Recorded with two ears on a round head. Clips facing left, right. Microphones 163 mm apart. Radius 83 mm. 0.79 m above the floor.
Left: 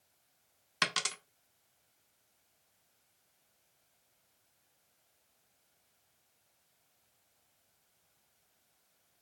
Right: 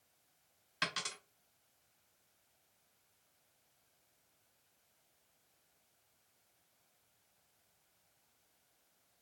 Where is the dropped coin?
65° left (ahead or behind), 0.5 m.